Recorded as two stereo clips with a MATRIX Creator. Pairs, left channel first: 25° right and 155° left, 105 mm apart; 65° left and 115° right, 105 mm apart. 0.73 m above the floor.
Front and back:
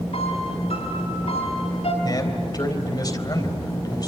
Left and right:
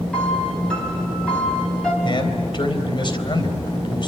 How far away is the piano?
About 4.5 m.